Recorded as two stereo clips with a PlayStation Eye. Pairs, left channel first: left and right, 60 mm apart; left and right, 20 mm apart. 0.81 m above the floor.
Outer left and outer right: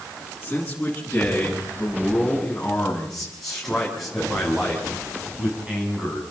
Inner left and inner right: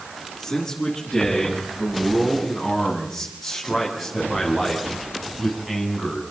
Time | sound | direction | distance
0.4 | a man speaking | 20° left (ahead or behind) | 9.5 m